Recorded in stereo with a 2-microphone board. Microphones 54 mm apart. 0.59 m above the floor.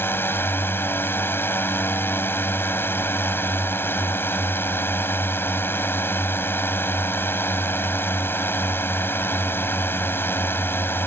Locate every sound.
0.0 s a drone: 45° left (ahead or behind)